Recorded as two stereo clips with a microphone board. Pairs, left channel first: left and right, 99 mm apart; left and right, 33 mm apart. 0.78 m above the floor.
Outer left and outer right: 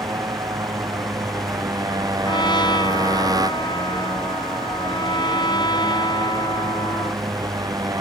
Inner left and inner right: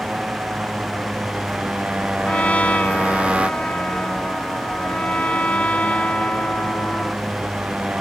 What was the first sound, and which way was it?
A motorcycle, 40° right (ahead or behind).